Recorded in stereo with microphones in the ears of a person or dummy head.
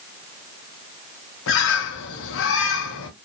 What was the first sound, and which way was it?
A bird, 70° left (ahead or behind).